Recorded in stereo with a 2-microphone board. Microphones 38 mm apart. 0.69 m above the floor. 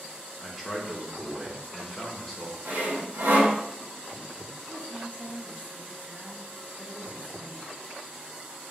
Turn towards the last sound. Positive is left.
turn(degrees=-35)  # may be behind; listen again after turning